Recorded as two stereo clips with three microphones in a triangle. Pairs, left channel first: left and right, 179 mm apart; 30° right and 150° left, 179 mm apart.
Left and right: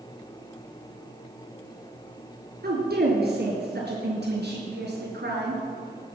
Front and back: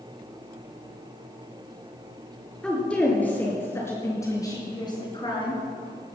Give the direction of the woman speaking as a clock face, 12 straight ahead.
4 o'clock.